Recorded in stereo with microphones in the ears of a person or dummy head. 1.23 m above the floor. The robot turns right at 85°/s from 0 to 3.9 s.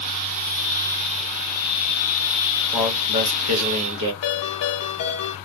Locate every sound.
2.7 s a man speaking: 160° right, 1.4 m; by 4.1 s 60° right, 1.4 m
4.2 s a ringtone: 55° left (ahead or behind), 1.0 m